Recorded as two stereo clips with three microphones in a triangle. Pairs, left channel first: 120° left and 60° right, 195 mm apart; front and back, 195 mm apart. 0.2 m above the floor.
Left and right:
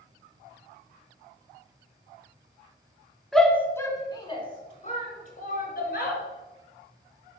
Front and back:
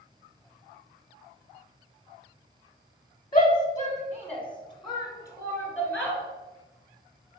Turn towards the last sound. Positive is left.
turn(degrees=105)